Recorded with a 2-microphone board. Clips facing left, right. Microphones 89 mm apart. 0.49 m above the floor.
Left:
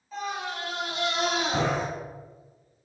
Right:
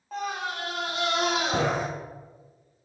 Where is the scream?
60° right (ahead or behind), 1.6 m.